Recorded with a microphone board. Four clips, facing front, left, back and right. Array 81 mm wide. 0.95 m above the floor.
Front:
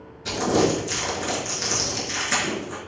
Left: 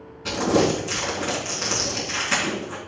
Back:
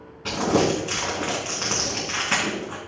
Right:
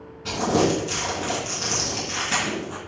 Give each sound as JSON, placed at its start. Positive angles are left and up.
{"t": 0.2, "sound": "crumpling", "azimuth_deg": 175, "distance_m": 3.0}